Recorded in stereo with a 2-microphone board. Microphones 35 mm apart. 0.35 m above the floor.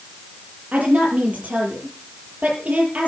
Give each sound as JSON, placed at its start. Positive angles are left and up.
{"t": 0.7, "sound": "a woman speaking", "side_deg": -45, "distance_m": 7.5}